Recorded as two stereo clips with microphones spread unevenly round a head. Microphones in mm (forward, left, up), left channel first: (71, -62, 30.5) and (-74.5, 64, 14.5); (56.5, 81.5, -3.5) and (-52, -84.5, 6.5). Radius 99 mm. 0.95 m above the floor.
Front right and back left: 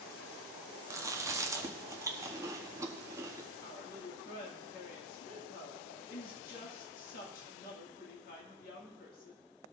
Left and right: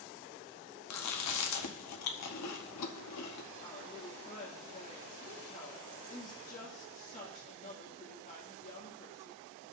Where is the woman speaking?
5° left, 1.9 m.